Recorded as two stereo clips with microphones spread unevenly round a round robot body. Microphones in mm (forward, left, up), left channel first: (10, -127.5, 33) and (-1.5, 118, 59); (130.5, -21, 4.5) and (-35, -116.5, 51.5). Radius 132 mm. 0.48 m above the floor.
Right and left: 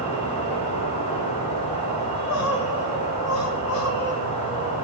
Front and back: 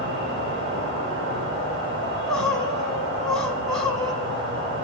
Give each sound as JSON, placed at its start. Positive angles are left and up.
{"t": 0.0, "sound": "an insect", "azimuth_deg": -145, "distance_m": 2.5}
{"t": 2.0, "sound": "crying", "azimuth_deg": -60, "distance_m": 1.1}